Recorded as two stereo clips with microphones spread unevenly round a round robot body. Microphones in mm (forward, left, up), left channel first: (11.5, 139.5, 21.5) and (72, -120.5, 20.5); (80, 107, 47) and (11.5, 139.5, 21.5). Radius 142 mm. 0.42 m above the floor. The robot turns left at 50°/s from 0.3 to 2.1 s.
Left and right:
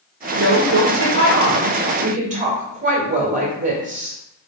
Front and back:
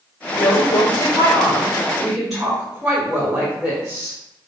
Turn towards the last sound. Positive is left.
turn(degrees=-135)